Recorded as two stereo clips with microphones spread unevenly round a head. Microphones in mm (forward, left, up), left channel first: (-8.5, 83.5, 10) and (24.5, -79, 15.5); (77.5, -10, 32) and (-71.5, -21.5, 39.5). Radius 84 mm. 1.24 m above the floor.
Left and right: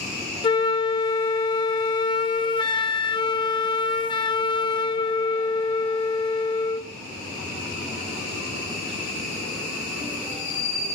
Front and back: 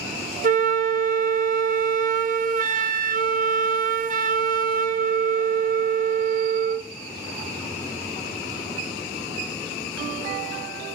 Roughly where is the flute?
Behind.